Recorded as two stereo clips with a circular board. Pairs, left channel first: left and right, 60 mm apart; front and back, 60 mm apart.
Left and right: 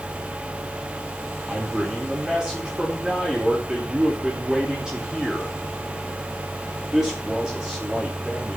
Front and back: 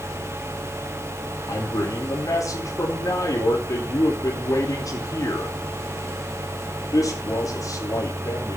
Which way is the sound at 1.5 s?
15° right.